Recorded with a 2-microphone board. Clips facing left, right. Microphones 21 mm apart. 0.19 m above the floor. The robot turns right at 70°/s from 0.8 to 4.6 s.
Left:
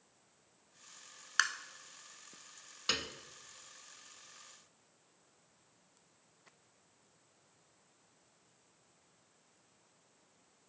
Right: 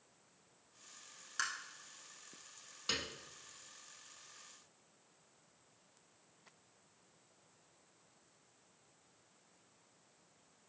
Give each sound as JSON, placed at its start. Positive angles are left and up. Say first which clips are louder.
{"t": 1.4, "sound": "tapping", "louder": "left 7 dB", "side_deg": 55, "distance_m": 0.6}
{"t": 2.9, "sound": "a piano", "louder": "left 3 dB", "side_deg": 30, "distance_m": 0.5}